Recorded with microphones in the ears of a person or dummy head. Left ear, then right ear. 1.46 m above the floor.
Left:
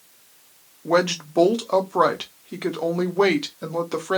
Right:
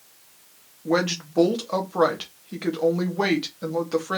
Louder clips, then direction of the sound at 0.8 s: Left 3 dB; 15° left (ahead or behind).